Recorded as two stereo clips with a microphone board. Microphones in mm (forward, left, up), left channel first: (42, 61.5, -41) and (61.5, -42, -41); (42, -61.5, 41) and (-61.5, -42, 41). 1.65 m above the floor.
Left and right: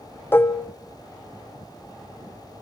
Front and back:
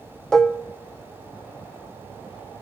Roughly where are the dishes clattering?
Ahead left.